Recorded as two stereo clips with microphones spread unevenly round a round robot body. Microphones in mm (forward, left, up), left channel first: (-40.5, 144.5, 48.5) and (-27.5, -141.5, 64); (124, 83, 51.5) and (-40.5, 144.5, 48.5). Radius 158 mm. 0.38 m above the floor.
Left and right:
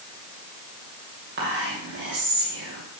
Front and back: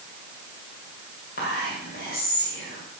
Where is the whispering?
45° right, 2.5 m.